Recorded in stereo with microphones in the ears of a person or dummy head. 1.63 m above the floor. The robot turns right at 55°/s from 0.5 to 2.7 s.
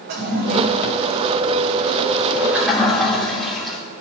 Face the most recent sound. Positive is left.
turn(degrees=5)  # may be behind; listen again after turning